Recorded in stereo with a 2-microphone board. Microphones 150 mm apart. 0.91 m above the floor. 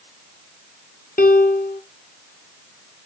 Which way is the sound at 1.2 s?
80° left.